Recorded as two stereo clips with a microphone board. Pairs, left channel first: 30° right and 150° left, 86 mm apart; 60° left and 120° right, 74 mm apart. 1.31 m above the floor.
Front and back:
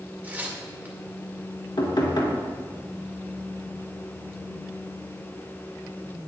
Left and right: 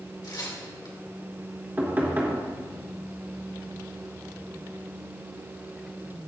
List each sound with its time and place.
0.2 s tearing paper: 80° left, 2 m
1.8 s knocking: 60° right, 2.5 m